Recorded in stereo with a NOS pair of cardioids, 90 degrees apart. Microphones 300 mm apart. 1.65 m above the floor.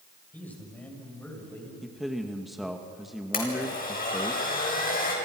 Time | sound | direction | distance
0.3 | a man speaking | 5° left | 8.5 m
1.8 | a man speaking | straight ahead | 2.0 m
3.3 | a blender | 30° left | 7.5 m